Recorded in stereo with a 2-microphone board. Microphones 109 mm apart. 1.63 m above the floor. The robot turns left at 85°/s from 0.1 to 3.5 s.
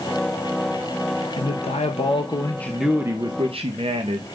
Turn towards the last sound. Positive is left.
turn(degrees=-60)